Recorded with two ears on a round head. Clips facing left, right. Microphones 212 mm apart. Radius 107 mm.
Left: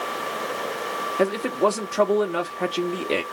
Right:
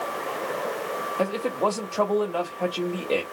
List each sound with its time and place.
1.2 s a man speaking: 20° left (ahead or behind), 0.9 m